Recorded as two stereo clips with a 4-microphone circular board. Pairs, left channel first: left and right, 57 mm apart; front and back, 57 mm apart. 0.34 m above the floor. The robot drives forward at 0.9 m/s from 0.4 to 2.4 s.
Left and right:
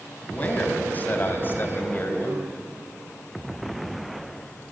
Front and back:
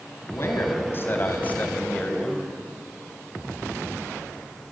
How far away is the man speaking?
About 3 m.